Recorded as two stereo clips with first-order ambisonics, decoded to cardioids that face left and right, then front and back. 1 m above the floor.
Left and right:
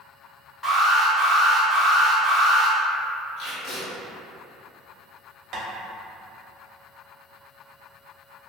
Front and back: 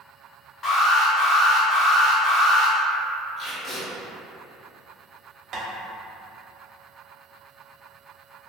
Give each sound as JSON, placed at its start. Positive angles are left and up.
{"t": 0.6, "sound": "an alarm", "azimuth_deg": 25, "distance_m": 0.8}
{"t": 3.4, "sound": "tape being pulled", "azimuth_deg": 50, "distance_m": 1.2}
{"t": 5.5, "sound": "tapping", "azimuth_deg": -125, "distance_m": 0.6}